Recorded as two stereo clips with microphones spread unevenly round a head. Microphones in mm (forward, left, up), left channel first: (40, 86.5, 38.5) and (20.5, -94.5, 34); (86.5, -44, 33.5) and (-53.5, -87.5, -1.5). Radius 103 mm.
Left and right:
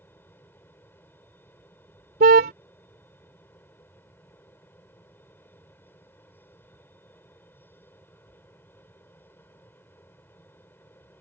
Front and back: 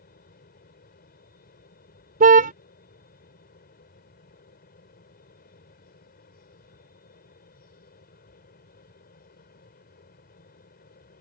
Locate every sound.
0.0 s a fan: 5° left
2.2 s a car horn: 140° right